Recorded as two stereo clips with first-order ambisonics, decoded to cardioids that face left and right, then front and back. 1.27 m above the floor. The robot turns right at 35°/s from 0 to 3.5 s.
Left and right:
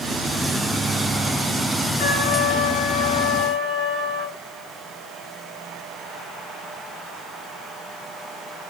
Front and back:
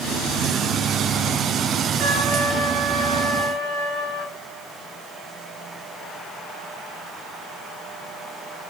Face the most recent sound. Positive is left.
turn(degrees=-170)